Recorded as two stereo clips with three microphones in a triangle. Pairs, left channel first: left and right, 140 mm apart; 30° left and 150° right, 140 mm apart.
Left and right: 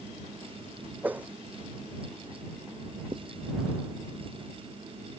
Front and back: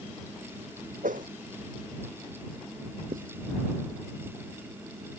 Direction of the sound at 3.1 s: 140° right.